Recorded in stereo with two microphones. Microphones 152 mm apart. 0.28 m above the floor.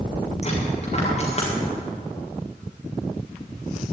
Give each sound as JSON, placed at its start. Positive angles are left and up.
{"t": 0.4, "sound": "a dropped coin", "side_deg": 40, "distance_m": 4.5}